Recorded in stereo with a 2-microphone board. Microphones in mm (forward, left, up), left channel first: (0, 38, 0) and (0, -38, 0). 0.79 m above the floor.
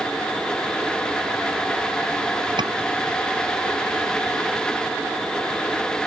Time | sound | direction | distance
2.6 | a scream | 80° right | ?